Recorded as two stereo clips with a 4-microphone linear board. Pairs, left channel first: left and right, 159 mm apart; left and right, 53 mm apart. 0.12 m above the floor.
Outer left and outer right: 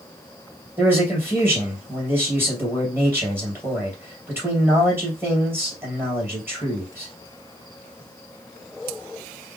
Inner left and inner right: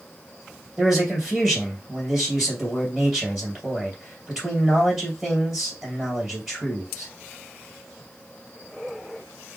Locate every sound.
0.8 s a man speaking: 10° right (ahead or behind), 3 m